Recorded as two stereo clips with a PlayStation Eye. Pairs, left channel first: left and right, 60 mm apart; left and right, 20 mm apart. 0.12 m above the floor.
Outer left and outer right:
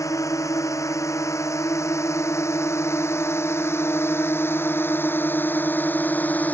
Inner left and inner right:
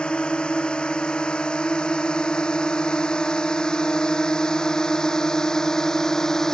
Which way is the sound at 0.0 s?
60° left (ahead or behind).